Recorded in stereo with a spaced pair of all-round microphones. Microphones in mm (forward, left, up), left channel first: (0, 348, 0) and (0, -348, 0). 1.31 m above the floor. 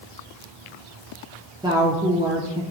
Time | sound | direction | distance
1.6 | a woman speaking | 5° right (ahead or behind) | 0.6 m